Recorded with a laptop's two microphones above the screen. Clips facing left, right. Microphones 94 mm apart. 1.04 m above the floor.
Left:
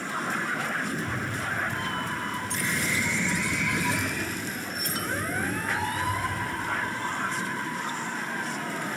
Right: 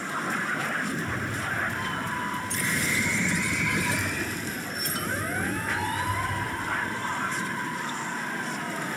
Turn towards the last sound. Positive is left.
turn(degrees=75)  # may be behind; listen again after turning